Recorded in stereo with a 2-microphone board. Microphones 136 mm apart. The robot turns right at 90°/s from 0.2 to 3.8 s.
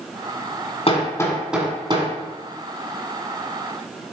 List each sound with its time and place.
0.9 s hammering: 45° left (ahead or behind), 1.6 m; by 2.1 s 50° right (ahead or behind), 1.6 m